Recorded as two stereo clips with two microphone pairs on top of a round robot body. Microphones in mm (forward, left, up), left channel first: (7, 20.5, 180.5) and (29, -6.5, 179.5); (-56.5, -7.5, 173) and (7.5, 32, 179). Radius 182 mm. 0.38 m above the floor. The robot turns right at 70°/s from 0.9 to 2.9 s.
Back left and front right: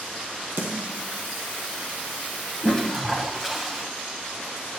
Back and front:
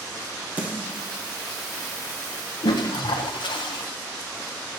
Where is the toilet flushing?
160° right, 0.6 m; by 3.8 s 140° right, 0.6 m.